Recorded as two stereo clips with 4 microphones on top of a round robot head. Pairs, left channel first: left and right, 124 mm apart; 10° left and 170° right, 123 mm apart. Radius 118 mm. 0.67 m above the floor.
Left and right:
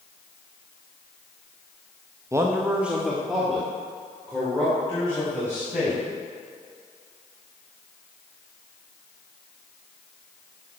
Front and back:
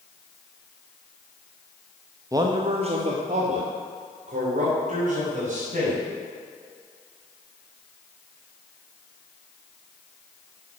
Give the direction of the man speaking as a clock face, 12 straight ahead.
4 o'clock.